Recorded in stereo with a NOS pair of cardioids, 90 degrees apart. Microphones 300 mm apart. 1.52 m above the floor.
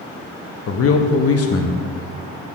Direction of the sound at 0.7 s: 50° left.